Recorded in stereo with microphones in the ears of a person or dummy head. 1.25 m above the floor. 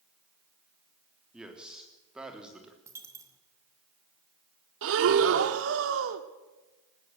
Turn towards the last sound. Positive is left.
turn(degrees=-65)  # may be behind; listen again after turning